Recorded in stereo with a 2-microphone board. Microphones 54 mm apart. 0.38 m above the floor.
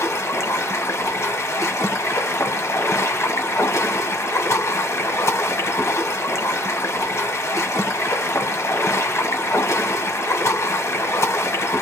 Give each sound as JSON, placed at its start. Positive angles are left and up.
{"t": 0.0, "sound": "running water", "side_deg": 70, "distance_m": 1.3}